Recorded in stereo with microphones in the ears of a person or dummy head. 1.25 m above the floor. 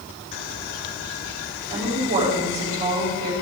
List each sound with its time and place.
1.7 s a woman speaking: 40° right (ahead or behind), 5.5 m